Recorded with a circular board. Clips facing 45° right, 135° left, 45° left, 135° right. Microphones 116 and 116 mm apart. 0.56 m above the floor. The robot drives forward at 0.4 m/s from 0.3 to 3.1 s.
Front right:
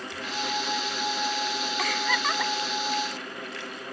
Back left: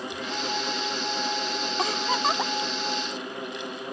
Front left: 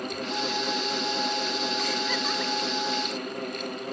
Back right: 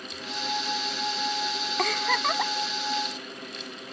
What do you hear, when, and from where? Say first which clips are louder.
1.8 s a giggle: back left 3 dB, back right 3 dB; 165° right